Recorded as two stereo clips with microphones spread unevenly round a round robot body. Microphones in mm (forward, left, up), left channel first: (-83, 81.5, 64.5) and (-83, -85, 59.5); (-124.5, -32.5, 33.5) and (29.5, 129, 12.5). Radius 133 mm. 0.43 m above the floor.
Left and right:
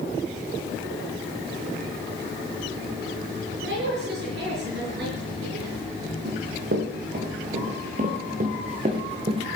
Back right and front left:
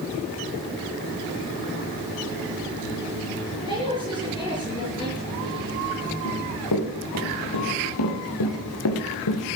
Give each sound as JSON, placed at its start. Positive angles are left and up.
{"t": 3.6, "sound": "a woman speaking", "azimuth_deg": -60, "distance_m": 6.5}
{"t": 6.2, "sound": "running footsteps", "azimuth_deg": -115, "distance_m": 5.0}